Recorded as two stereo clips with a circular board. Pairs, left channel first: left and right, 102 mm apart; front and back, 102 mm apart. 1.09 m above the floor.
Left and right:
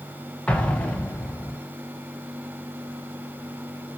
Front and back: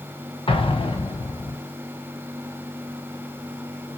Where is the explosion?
10° left, 0.5 m.